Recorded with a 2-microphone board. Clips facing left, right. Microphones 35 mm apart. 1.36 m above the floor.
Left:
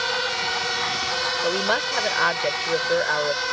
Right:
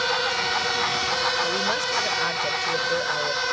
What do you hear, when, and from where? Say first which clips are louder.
1.4 s a woman speaking: left 2 dB; 25° left (ahead or behind)